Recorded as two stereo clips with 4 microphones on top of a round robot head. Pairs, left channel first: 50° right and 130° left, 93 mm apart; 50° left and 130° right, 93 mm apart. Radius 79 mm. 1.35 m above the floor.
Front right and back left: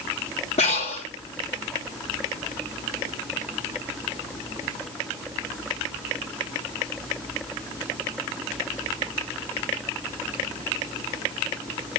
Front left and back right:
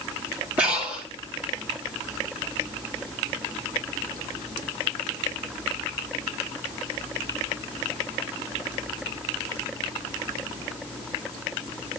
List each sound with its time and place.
0.6 s breathing: 50° right, 2.5 m